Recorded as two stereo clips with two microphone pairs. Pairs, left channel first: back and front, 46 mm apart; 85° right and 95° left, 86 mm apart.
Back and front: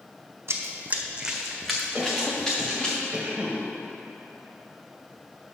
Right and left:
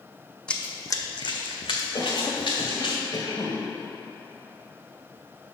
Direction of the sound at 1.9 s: 65° right.